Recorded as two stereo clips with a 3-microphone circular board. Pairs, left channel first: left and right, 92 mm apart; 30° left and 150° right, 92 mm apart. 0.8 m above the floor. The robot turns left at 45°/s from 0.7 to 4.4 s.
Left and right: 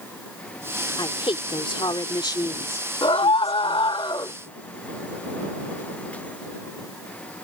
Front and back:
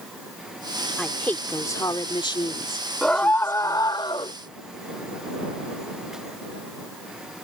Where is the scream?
110° left; by 4.3 s 50° left.